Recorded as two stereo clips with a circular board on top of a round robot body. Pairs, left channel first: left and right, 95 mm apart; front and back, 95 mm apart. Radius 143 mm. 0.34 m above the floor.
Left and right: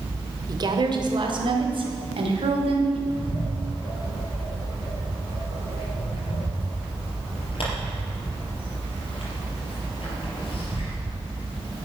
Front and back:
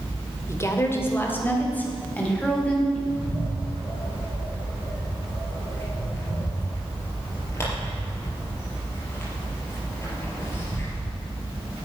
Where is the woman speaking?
55° right, 2 m; by 3.0 s 80° right, 4 m.